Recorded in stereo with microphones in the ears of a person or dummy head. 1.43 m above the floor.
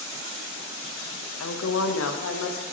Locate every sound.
1.4 s a woman speaking: 85° left, 1.4 m